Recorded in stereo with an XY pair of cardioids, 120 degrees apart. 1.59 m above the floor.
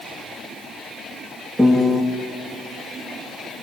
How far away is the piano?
About 2 m.